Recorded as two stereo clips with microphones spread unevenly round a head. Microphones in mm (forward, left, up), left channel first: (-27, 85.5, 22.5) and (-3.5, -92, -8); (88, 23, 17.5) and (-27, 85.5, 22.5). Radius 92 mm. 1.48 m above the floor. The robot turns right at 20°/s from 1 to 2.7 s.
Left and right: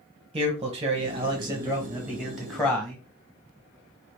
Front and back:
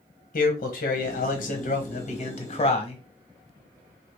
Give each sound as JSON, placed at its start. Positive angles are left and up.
{"t": 0.3, "sound": "a man speaking", "azimuth_deg": -20, "distance_m": 1.1}